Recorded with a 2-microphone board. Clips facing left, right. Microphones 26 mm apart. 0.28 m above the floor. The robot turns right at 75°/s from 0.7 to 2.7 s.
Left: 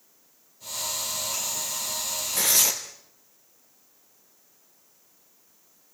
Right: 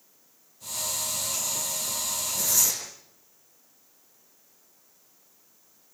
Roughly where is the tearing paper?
Left.